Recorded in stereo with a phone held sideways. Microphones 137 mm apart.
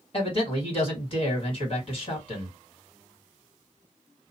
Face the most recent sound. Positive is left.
turn(degrees=45)  # may be behind; listen again after turning